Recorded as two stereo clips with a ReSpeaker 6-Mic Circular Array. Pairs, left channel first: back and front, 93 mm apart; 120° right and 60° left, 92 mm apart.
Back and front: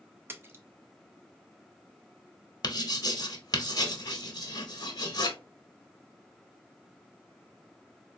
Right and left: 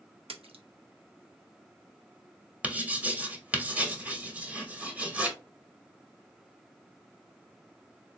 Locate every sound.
0.3 s a splash: 65° left, 0.5 m
2.6 s writing: 135° left, 0.8 m